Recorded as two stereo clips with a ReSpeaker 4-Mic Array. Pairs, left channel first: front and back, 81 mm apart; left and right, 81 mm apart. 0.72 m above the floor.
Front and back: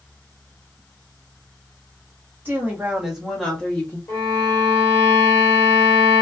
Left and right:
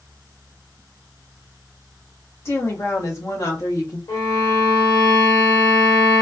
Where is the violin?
55° left, 1.6 m.